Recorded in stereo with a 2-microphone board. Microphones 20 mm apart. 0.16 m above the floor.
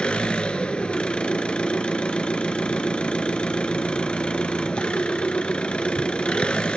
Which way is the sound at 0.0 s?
65° left (ahead or behind).